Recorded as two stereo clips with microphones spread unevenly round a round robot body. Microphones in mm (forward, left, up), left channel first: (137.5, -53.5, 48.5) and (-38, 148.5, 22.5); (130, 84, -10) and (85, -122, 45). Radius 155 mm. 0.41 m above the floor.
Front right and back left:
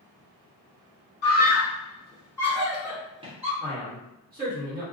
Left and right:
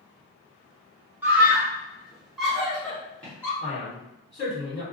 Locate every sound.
1.2 s a scream: 10° right, 1.1 m; by 3.5 s 125° left, 0.9 m
3.6 s a man speaking: 100° left, 1.5 m